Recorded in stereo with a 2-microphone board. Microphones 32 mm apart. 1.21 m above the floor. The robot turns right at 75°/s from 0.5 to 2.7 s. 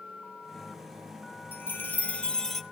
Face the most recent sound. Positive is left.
turn(degrees=-175)